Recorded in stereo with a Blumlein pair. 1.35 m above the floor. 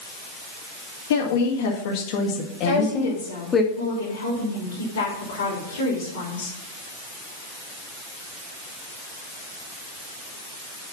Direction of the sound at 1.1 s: 60° left.